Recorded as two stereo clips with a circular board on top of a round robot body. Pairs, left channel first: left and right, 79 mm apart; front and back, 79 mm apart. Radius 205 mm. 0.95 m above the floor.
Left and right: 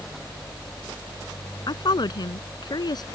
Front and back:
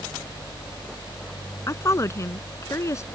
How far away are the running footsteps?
I don't hear running footsteps.